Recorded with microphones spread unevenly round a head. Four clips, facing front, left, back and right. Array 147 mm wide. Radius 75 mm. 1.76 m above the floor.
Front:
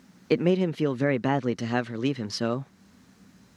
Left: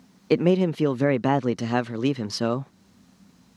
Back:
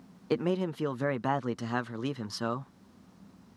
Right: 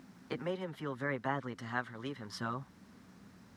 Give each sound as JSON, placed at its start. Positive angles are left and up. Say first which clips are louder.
{"t": 0.3, "sound": "a man speaking", "louder": "left 18 dB, front 6 dB", "azimuth_deg": 70}